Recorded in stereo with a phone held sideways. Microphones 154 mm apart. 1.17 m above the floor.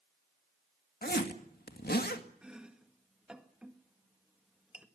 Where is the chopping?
5° right (ahead or behind), 1.8 m.